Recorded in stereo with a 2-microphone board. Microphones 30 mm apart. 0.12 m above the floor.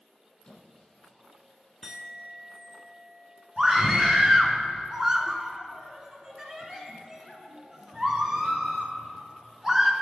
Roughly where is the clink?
Centre.